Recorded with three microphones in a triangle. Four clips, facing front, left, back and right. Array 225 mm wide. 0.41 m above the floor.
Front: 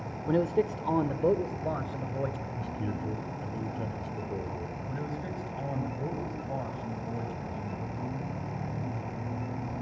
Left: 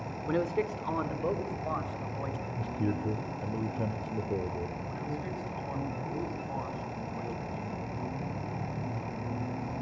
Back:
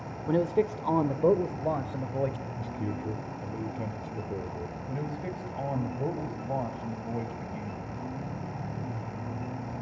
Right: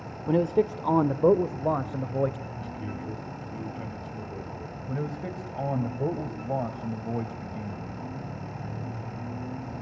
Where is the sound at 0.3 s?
90° right, 0.8 m; by 2.5 s 110° right, 1.6 m.